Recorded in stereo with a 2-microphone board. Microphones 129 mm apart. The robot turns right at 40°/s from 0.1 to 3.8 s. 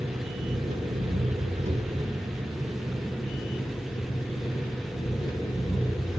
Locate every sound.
0.0 s an engine running: 115° right, 5.5 m; by 6.2 s 30° left, 5.5 m